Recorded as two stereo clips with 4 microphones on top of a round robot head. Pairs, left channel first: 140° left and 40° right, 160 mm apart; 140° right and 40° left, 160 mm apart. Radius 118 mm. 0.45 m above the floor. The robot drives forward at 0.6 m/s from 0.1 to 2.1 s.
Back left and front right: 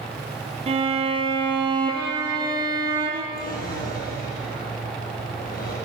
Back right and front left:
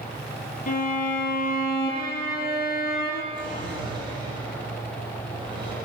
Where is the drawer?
105° left, 8 m.